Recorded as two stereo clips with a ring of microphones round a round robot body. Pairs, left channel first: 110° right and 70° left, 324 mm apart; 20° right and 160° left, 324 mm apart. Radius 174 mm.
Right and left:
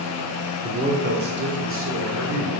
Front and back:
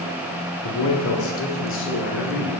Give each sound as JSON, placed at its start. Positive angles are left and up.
{"t": 0.6, "sound": "a man speaking", "azimuth_deg": -5, "distance_m": 0.9}